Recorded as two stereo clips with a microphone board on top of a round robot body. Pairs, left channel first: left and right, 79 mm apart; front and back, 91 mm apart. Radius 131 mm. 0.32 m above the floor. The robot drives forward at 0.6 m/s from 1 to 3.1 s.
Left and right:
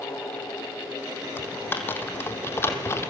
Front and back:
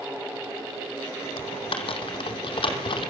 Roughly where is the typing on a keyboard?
Ahead left.